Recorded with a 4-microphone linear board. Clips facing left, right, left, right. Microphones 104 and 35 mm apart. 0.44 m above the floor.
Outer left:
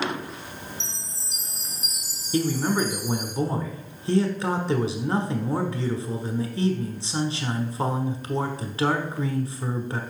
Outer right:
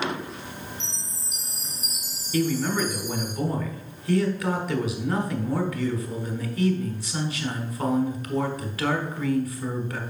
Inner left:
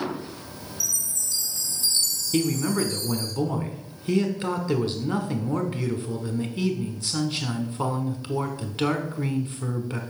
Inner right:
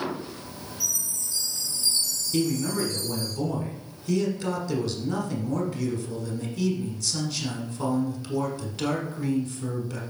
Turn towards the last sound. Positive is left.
turn(degrees=25)  # may be behind; listen again after turning